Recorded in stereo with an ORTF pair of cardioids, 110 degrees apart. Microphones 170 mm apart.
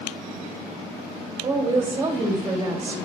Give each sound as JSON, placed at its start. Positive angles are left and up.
{"t": 1.4, "sound": "a woman speaking", "azimuth_deg": -35, "distance_m": 1.9}